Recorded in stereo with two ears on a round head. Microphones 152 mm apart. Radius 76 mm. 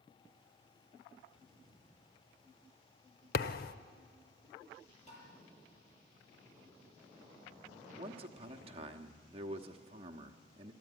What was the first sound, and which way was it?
A thud, 55° left (ahead or behind).